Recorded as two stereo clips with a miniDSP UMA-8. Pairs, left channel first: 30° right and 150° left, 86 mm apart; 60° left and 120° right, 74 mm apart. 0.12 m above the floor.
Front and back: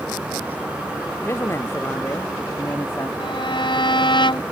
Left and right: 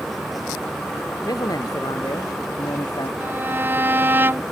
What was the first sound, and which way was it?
A man speaking, 30° left.